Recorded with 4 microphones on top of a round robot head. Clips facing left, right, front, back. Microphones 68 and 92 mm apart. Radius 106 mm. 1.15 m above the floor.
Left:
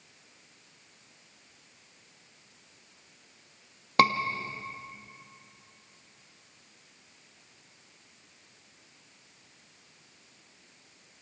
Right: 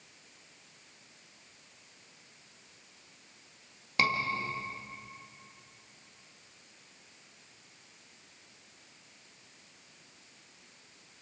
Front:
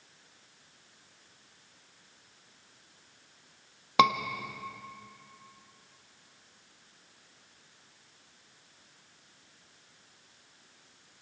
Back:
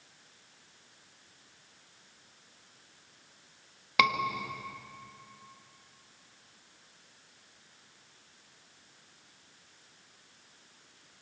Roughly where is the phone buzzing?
No phone buzzing in this recording.